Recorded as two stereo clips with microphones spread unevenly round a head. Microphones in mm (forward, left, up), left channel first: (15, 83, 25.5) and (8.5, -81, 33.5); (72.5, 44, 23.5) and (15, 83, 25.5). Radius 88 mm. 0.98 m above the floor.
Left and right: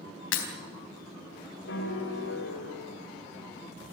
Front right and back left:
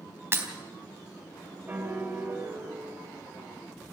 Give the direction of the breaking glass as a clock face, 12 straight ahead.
9 o'clock.